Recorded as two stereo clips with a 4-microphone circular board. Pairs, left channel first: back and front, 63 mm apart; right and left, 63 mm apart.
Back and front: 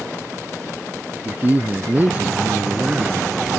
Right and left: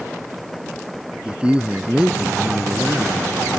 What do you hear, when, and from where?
1.2 s a man speaking: 30° left